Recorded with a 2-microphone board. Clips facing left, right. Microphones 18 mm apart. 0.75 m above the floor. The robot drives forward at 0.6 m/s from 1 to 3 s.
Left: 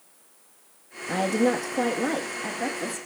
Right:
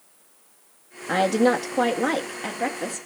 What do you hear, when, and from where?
1.1 s a woman speaking: 30° right (ahead or behind), 0.7 m; by 3.1 s 15° right (ahead or behind), 1.5 m